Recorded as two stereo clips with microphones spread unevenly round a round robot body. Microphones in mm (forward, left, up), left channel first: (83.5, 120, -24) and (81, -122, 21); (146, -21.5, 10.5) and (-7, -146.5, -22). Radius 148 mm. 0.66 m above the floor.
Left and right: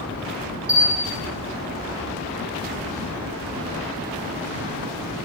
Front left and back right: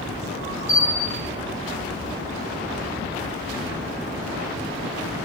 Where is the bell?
15° left, 1.3 m.